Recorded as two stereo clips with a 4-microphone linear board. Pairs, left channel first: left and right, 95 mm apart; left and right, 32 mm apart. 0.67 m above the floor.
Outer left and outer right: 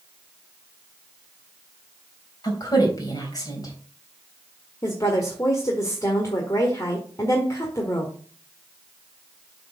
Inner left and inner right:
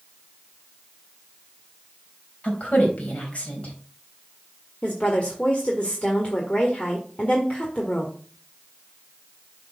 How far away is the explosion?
I don't hear an explosion.